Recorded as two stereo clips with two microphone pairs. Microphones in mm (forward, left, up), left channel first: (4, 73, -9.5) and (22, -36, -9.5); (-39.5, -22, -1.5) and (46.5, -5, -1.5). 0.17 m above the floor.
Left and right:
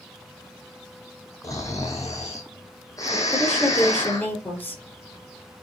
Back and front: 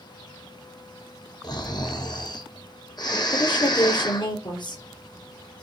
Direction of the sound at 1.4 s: 155° left.